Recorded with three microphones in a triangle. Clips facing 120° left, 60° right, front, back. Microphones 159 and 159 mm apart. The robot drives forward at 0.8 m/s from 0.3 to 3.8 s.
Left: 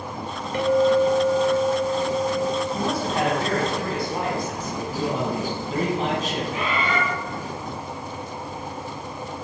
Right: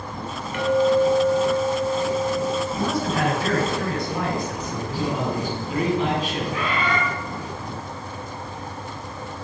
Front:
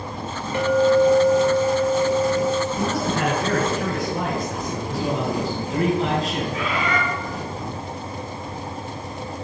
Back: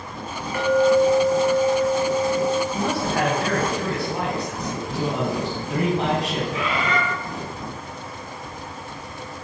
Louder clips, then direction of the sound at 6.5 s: Right 1 dB, even; straight behind.